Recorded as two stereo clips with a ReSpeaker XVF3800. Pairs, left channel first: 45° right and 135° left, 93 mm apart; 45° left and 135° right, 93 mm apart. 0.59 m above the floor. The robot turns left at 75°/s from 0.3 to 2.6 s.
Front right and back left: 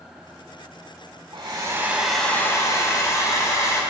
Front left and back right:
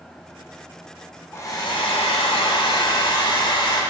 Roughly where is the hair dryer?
Left.